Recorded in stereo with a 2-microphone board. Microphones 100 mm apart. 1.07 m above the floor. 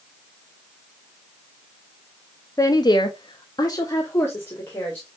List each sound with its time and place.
2.6 s a woman speaking: 35° left (ahead or behind), 0.8 m; by 5.1 s 20° left (ahead or behind), 1.8 m